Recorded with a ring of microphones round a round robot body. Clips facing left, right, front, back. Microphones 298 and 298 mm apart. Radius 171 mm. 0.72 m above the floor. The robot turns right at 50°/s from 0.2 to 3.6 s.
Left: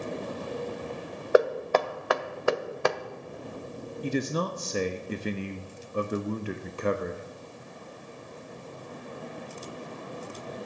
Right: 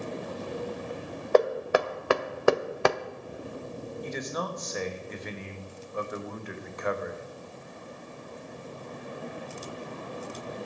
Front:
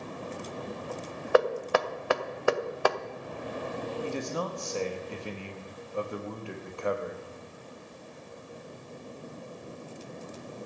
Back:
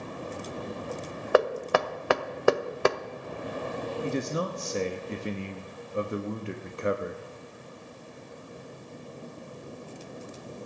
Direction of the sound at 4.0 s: 120° left.